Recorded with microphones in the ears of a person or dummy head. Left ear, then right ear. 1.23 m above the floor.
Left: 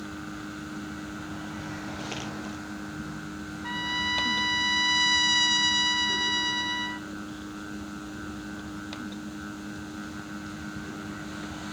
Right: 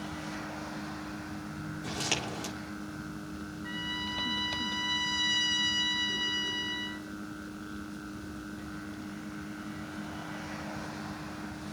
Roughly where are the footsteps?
Right.